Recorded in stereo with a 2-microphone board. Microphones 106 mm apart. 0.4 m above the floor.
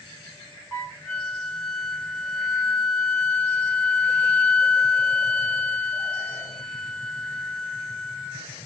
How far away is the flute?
About 1.2 m.